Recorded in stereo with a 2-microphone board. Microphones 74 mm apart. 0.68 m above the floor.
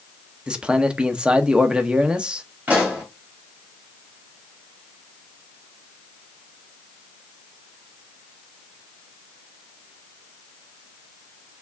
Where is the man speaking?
10° right (ahead or behind), 0.6 m.